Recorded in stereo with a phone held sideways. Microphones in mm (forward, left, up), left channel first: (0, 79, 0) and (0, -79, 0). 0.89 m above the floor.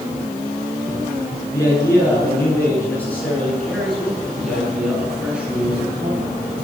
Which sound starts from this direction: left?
A man speaking, at 1.5 s.